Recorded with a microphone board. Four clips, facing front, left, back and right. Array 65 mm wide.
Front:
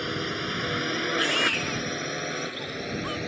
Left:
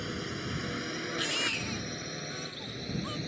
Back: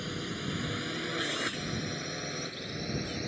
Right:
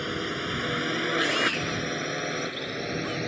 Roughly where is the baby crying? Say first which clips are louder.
Right 7 dB, front 8 dB; ahead.